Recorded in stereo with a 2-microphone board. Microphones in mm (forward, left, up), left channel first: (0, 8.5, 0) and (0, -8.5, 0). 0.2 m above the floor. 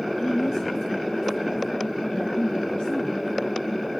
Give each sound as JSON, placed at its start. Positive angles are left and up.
{"t": 0.2, "sound": "a woman speaking", "side_deg": 45, "distance_m": 3.5}